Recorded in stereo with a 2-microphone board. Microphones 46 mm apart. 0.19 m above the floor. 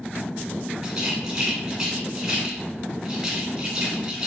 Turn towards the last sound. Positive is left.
turn(degrees=-15)  # may be behind; listen again after turning